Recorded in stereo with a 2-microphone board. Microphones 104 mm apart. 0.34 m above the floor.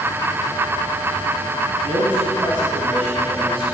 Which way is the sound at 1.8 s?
75° right (ahead or behind).